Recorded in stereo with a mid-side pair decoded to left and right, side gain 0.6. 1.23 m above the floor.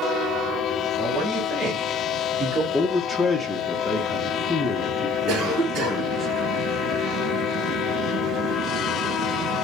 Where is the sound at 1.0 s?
20° right, 2 m; by 2.6 s 45° right, 1.2 m.